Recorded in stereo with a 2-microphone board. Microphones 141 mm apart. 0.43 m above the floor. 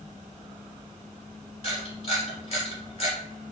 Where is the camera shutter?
45° left (ahead or behind), 1.5 m.